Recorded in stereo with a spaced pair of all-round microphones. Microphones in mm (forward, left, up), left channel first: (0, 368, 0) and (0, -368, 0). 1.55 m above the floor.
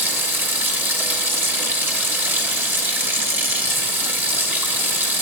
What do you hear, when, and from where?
0.0 s running water: 5° right (ahead or behind), 0.9 m